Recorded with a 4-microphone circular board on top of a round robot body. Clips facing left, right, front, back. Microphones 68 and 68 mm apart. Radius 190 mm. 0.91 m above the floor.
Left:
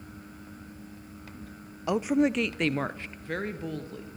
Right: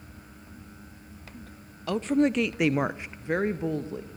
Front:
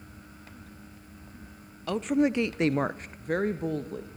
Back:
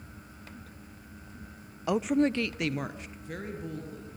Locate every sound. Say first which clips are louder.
1.9 s a woman speaking: right 1 dB, even; 130° left, 0.8 m; by 4.2 s 25° right, 1.8 m